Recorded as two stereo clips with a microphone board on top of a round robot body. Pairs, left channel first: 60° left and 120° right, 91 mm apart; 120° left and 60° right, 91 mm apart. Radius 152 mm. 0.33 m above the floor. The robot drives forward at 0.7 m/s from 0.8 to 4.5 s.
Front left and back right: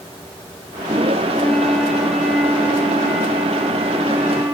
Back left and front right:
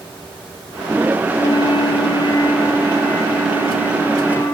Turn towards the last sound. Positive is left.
turn(degrees=170)